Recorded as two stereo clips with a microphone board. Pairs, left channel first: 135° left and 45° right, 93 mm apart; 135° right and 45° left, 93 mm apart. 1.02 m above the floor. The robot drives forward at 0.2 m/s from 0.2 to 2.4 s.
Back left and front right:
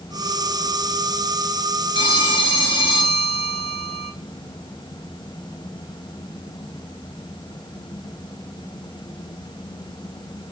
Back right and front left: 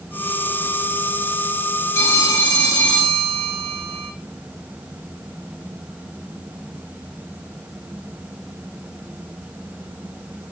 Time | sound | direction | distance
1.9 | a phone ringing | 165° left | 6 m